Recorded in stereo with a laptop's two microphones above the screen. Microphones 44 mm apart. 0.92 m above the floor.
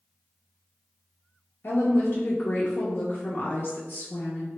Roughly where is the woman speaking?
Left.